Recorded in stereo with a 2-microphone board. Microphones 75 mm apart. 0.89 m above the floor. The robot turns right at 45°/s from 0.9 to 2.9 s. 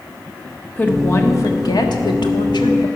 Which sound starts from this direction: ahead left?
A woman speaking, at 0.8 s.